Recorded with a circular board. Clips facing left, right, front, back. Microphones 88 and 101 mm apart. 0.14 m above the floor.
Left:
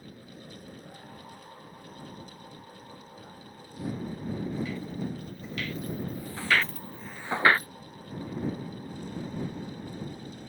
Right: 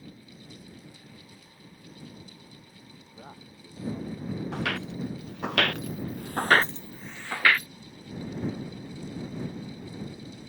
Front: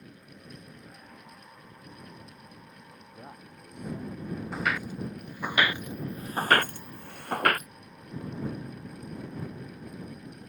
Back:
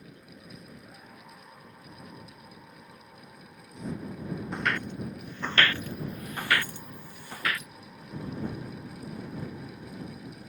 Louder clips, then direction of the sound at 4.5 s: Right 2 dB, even; 90° right.